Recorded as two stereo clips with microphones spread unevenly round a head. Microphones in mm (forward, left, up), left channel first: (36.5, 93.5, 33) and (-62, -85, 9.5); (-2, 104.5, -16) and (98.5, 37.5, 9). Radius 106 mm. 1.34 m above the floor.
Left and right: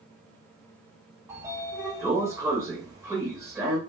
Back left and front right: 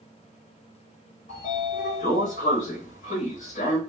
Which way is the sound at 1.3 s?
160° left.